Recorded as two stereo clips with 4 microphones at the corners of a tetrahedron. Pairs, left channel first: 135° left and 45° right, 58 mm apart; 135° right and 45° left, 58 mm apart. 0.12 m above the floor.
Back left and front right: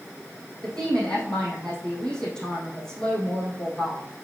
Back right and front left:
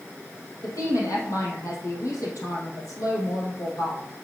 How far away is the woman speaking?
About 4 m.